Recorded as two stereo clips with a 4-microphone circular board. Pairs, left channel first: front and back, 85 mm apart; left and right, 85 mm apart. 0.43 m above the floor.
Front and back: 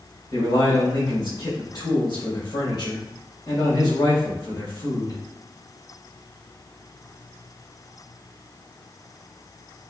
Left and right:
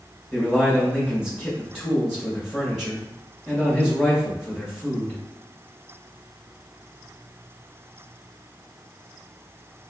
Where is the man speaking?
Straight ahead, 1.9 m.